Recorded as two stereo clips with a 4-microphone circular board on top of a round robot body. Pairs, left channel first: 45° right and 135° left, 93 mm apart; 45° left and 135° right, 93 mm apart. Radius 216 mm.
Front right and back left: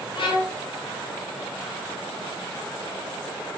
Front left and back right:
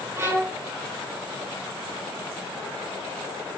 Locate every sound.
0.1 s a violin: 70° right, 0.7 m